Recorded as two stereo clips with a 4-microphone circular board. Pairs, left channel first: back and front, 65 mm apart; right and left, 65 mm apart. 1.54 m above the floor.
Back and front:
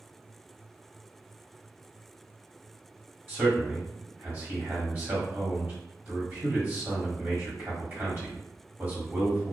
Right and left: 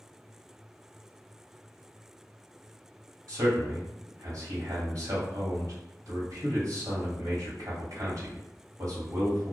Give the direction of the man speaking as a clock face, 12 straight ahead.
10 o'clock.